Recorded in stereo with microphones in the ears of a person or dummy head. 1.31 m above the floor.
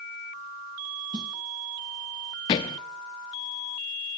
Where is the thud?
15° left (ahead or behind), 0.8 m.